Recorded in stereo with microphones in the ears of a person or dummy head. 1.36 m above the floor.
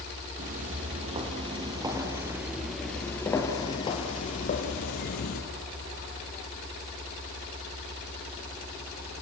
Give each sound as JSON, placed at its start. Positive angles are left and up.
{"t": 0.4, "sound": "footsteps", "side_deg": -40, "distance_m": 2.5}